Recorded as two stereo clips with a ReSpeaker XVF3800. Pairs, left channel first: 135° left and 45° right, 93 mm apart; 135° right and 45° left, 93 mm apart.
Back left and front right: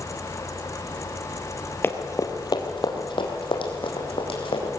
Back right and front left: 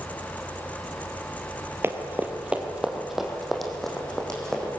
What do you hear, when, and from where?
1.8 s running footsteps: 85° left, 1.9 m; by 4.7 s 140° left, 5 m